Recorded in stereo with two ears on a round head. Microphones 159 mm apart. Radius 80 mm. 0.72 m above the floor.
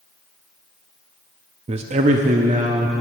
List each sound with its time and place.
1.7 s a man speaking: 35° right (ahead or behind), 0.6 m; by 2.9 s 40° right (ahead or behind), 1.2 m